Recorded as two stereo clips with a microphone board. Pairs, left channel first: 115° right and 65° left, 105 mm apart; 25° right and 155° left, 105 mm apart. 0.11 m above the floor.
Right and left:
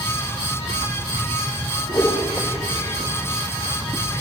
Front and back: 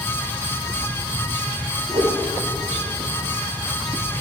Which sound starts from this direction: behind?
A whoosh, at 1.9 s.